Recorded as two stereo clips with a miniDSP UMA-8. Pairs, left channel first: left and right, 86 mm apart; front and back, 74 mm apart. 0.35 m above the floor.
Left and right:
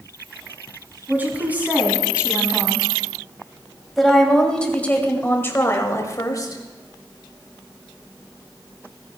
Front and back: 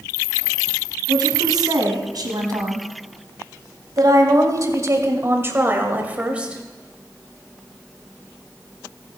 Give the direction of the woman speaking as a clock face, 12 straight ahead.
5 o'clock.